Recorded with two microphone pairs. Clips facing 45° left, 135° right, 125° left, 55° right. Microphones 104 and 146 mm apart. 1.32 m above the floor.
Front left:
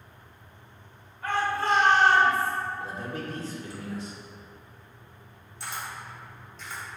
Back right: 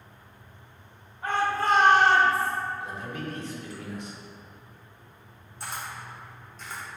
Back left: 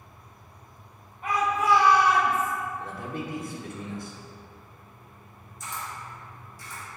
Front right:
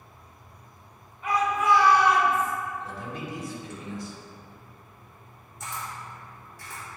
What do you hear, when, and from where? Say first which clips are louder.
1.2 s a shout: back right 1 dB, front right 1 dB; 160° left, 1.6 m; by 2.5 s 125° right, 1.2 m
2.8 s a man speaking: front left 1 dB, back left 2 dB; 95° left, 1.0 m
5.6 s a camera shutter: even, even; 85° right, 1.2 m